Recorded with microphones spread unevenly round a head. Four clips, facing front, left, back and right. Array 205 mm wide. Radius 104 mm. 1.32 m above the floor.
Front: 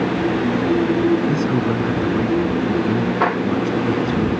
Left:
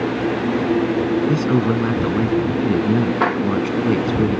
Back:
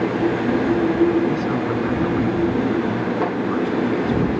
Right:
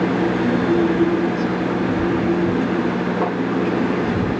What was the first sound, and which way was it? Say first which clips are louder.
A man speaking: left 3 dB, front 2 dB; 70° left.